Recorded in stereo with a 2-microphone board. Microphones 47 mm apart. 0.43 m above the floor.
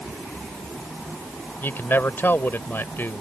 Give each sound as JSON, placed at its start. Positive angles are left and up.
{"t": 1.6, "sound": "a man speaking", "side_deg": 50}